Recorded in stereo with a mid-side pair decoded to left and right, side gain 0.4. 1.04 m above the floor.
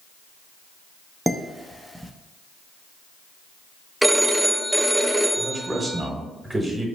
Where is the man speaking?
30° right, 1.4 m.